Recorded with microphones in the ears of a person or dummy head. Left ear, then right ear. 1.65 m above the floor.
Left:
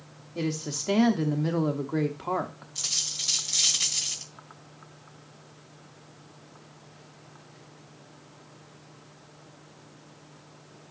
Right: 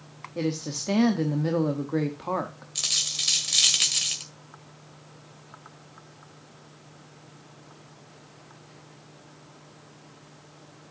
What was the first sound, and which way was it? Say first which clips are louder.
A woman speaking: right 2 dB; 5° left (ahead or behind).